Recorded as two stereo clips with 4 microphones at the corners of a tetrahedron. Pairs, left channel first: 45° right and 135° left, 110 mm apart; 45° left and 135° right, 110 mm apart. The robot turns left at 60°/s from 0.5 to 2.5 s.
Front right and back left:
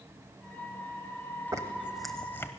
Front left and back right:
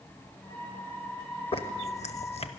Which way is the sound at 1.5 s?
75° left.